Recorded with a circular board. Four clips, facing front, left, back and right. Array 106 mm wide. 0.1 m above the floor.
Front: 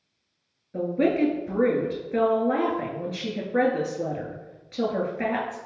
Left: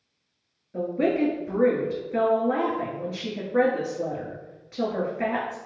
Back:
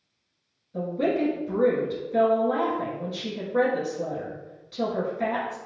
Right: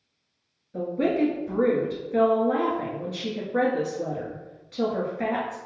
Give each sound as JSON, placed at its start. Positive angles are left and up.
{"t": 0.7, "sound": "a woman speaking", "azimuth_deg": 20, "distance_m": 1.4}